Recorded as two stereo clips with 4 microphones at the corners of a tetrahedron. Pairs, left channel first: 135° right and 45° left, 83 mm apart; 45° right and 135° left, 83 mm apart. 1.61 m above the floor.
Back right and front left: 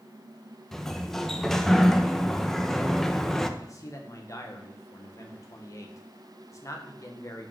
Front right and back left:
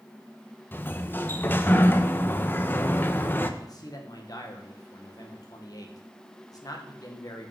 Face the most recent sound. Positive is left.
turn(degrees=-85)